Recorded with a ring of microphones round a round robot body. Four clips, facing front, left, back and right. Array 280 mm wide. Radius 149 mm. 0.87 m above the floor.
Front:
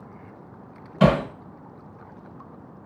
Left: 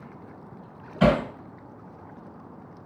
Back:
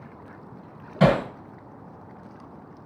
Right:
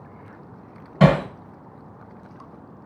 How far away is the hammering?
About 1.8 m.